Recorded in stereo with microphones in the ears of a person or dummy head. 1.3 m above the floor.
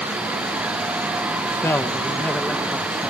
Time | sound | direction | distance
1.4 | a man speaking | 15° left (ahead or behind) | ?